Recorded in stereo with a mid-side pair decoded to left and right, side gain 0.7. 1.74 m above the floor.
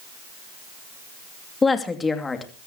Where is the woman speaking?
20° left, 2.5 m.